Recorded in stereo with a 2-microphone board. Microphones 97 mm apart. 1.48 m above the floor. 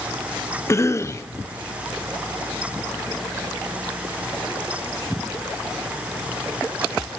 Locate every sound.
0.7 s a cough: 30° left (ahead or behind), 0.9 m